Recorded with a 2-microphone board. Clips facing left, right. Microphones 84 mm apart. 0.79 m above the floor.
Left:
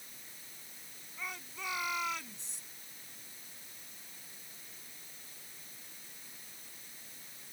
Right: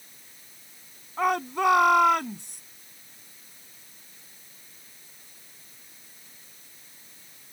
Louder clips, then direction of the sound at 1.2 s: Right 20 dB; 70° right (ahead or behind).